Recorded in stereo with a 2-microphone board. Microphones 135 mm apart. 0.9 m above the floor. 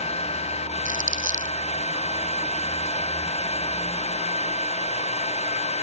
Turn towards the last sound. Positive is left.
turn(degrees=-75)  # may be behind; listen again after turning